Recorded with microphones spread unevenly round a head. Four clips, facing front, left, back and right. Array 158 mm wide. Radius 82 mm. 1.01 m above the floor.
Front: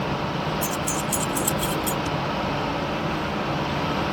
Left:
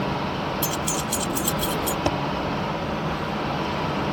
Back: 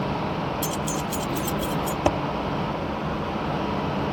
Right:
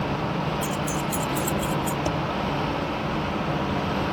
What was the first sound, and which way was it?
Keys jangling, 95° left.